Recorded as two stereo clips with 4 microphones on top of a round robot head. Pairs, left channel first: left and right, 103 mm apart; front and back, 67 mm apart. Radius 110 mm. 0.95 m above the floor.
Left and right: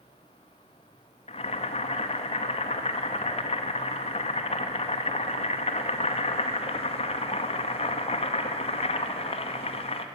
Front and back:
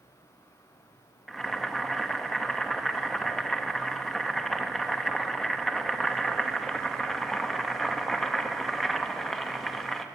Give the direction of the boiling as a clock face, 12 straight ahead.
9 o'clock.